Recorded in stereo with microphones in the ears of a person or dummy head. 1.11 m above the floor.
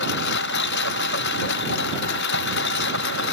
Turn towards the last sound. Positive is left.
turn(degrees=65)  # may be behind; listen again after turning